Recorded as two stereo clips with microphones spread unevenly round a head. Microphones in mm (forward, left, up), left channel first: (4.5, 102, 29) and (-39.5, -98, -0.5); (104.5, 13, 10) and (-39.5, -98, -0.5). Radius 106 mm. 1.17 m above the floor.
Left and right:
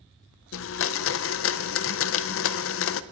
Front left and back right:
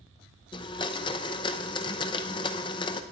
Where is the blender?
110° left, 0.7 m.